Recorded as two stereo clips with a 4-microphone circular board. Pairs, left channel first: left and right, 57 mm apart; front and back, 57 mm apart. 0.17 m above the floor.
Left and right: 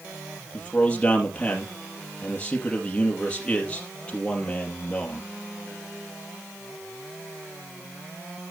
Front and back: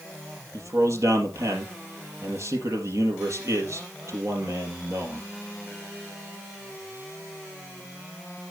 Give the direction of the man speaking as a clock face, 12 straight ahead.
7 o'clock.